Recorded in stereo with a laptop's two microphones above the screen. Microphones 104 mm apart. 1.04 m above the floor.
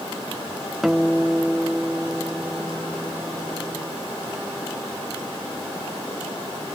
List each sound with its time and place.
0.8 s a guitar: 5° right (ahead or behind), 0.9 m